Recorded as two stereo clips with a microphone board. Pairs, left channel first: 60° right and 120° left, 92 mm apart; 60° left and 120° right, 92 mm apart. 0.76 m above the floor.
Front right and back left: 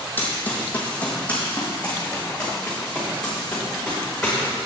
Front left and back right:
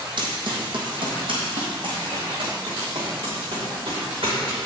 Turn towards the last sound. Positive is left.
turn(degrees=-145)